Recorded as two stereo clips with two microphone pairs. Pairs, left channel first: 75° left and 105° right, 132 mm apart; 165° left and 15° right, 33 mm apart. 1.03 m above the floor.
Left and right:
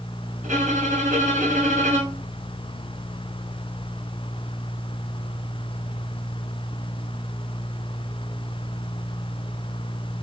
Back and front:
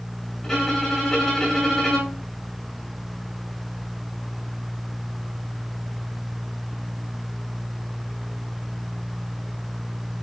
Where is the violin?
120° right, 6.5 m.